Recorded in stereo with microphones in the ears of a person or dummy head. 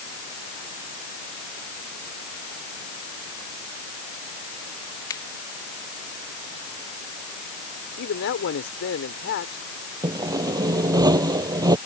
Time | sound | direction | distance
5.1 | a finger snap | 15° left (ahead or behind) | ?
8.0 | a man speaking | 65° left (ahead or behind) | ?
10.0 | sawing | 25° right (ahead or behind) | ?